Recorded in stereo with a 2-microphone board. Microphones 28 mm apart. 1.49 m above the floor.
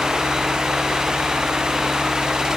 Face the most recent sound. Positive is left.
No sound to turn to.